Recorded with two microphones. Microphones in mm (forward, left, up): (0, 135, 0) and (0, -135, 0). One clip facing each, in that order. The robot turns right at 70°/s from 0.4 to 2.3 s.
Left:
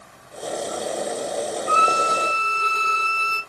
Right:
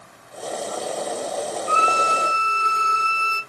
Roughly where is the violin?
Ahead left.